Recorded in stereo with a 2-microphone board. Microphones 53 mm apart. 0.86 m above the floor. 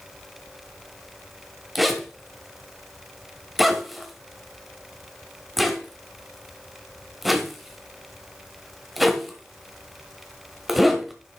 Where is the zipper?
5° right (ahead or behind), 1.4 m.